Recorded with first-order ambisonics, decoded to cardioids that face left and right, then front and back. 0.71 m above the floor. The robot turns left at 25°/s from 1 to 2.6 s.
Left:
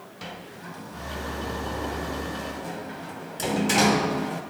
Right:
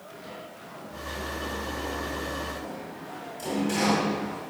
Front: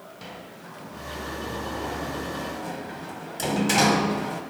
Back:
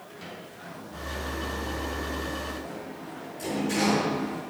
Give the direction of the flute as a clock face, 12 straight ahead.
No flute in this recording.